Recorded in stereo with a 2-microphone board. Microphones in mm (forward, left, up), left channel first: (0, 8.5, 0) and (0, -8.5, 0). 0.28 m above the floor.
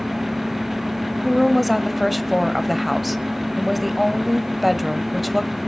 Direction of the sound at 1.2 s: 5° right (ahead or behind).